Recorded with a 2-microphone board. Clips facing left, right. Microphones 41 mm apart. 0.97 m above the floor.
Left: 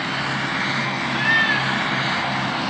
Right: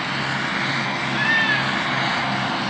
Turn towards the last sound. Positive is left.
turn(degrees=-45)  # may be behind; listen again after turning